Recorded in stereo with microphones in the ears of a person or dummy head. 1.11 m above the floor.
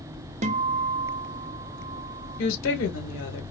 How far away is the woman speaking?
About 1.5 m.